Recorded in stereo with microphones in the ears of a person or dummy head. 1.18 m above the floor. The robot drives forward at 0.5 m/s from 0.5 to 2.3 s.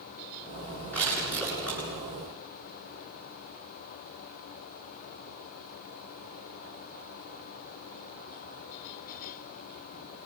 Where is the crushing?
15° left (ahead or behind), 9 m.